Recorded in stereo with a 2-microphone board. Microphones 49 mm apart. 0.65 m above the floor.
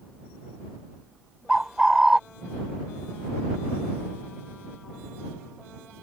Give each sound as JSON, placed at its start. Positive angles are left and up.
{"t": 1.5, "sound": "a bird", "side_deg": -10}